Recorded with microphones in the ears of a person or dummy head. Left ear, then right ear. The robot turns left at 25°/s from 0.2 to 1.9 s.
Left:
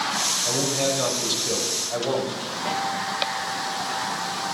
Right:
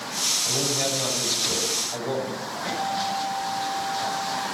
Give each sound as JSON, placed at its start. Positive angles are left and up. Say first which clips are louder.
{"t": 0.5, "sound": "a man speaking", "louder": "left 1 dB", "azimuth_deg": 165, "distance_m": 6.0}
{"t": 2.6, "sound": "a guitar", "louder": "even", "side_deg": 15, "distance_m": 7.0}